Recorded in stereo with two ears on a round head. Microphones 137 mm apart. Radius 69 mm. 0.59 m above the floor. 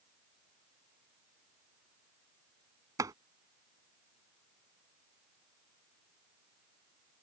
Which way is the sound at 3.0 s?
20° right (ahead or behind).